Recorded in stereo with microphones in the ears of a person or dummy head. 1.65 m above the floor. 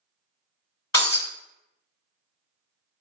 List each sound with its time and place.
0.9 s breaking glass: 20° left (ahead or behind), 1.9 m